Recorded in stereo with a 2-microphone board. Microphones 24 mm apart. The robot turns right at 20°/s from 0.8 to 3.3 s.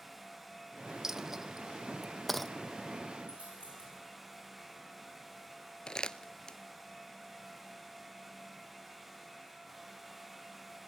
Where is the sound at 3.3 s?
80° right, 8.5 m.